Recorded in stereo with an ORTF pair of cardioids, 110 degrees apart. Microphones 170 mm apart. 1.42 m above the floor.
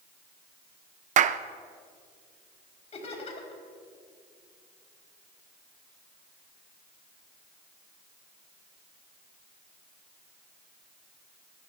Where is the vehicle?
I don't hear a vehicle.